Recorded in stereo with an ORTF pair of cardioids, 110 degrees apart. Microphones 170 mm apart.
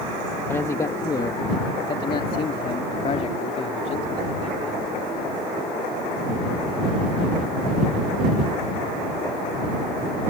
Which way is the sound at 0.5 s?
15° left.